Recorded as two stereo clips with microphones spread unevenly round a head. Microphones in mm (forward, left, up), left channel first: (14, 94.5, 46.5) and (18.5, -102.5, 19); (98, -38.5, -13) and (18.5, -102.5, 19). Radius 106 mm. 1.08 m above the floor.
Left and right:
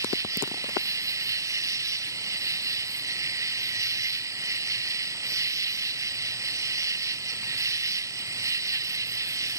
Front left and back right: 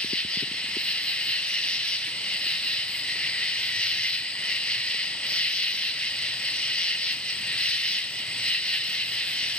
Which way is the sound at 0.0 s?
25° right.